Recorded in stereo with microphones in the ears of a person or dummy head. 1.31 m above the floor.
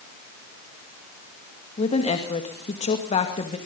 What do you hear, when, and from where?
1.8 s a woman speaking: 35° left (ahead or behind), 2 m